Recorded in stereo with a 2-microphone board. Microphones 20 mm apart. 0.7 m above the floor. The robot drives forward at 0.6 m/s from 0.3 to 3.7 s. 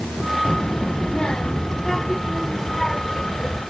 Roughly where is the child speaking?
Left.